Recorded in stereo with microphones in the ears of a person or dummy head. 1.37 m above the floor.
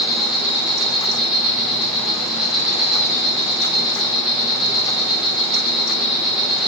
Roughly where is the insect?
Centre.